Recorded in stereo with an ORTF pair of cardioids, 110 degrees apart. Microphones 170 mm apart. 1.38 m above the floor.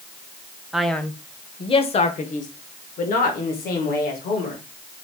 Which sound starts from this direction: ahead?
A man speaking, at 0.7 s.